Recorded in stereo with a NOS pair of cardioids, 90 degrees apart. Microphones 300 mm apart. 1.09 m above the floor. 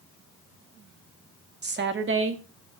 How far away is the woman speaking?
About 2 m.